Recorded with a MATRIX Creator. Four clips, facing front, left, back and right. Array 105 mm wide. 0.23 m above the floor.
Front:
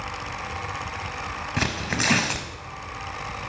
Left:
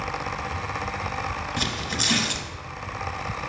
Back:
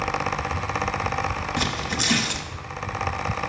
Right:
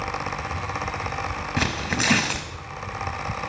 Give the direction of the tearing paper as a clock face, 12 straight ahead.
2 o'clock.